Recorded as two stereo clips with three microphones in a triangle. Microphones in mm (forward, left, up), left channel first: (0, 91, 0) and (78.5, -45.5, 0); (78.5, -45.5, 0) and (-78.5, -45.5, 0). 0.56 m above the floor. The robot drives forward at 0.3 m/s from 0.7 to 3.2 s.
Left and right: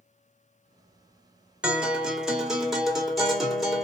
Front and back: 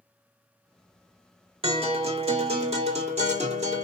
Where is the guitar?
140° right, 1.9 m; by 3.8 s 150° right, 2 m.